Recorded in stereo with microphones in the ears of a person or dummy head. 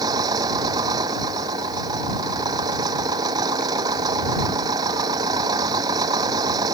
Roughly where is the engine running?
Right.